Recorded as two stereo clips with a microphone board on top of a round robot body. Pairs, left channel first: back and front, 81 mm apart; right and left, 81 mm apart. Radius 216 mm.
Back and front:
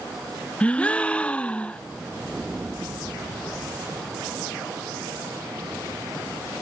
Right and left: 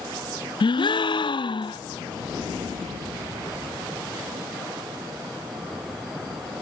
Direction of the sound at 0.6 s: 105° right.